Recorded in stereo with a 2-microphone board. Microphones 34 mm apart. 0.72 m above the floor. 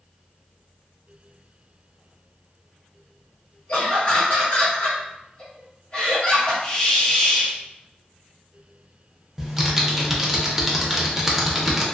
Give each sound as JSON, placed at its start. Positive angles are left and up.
{"t": 3.7, "sound": "laughter", "side_deg": 40, "distance_m": 1.6}
{"t": 6.6, "sound": "a hiss", "side_deg": 25, "distance_m": 0.7}
{"t": 9.4, "sound": "typing on a keyboard", "side_deg": -10, "distance_m": 0.5}